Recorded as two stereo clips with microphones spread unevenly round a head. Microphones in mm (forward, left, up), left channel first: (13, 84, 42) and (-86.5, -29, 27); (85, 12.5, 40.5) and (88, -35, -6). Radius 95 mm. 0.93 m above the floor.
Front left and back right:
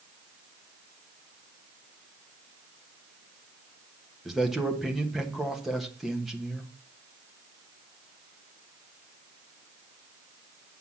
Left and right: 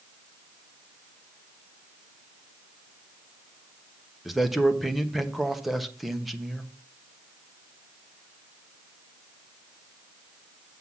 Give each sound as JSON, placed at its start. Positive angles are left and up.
{"t": 4.2, "sound": "a man speaking", "azimuth_deg": -45, "distance_m": 1.2}